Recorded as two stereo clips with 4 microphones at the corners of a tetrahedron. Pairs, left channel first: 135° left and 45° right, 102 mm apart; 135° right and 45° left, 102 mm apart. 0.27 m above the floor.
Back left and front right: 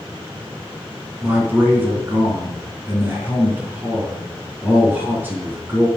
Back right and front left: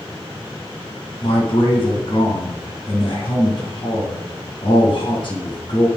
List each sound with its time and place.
1.2 s a man speaking: 115° right, 2.5 m